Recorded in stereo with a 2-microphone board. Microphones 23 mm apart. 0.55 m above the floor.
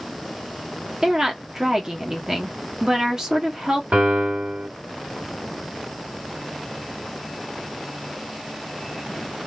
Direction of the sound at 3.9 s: 70° right (ahead or behind).